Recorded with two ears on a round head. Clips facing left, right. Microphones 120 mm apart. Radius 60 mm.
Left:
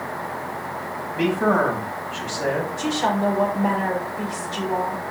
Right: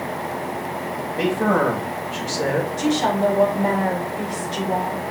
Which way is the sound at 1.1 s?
45° right (ahead or behind).